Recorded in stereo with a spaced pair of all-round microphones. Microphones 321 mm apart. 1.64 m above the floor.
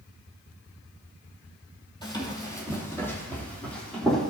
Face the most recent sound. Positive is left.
turn(degrees=0)  # may be behind; listen again after turning